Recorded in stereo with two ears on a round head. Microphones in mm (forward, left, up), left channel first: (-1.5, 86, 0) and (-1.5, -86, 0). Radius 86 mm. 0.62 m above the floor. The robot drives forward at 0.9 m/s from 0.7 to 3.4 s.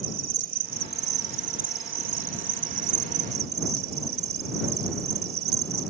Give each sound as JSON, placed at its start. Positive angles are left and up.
{"t": 0.0, "sound": "an insect", "side_deg": -50}